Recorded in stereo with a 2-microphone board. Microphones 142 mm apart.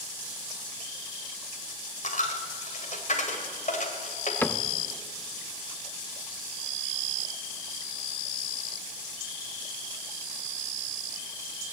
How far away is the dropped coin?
About 2.0 m.